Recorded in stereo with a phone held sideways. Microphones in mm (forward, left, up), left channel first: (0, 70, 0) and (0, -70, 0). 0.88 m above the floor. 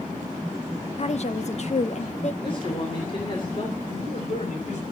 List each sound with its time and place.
1.0 s a woman speaking: 55° left (ahead or behind), 1.1 m
2.4 s a woman speaking: 40° left (ahead or behind), 3 m
3.9 s a man speaking: 65° left (ahead or behind), 4 m